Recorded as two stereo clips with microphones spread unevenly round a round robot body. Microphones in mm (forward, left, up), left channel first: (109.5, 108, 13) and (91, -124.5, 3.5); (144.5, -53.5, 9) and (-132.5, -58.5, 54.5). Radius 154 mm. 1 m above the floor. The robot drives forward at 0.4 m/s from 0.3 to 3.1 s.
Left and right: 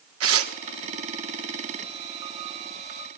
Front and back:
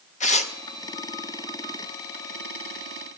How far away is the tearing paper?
About 1.3 m.